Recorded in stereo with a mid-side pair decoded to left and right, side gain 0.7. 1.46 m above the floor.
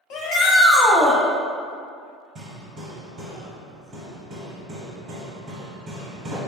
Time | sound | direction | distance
0.1 | a shout | 55° left | 0.6 m
2.4 | hammering | 45° right | 0.9 m